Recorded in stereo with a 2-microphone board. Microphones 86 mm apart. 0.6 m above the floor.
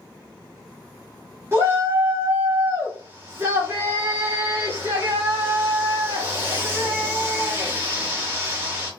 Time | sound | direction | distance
1.5 | a shout | 30° right (ahead or behind) | 1.0 m